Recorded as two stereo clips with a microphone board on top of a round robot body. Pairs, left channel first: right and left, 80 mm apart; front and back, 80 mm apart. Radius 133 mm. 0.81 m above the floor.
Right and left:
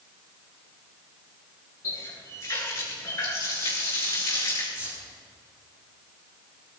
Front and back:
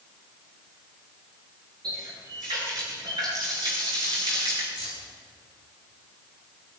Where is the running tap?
145° right, 8.5 m.